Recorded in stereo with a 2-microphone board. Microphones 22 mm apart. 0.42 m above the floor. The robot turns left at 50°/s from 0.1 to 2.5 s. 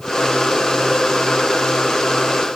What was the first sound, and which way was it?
Only background noise.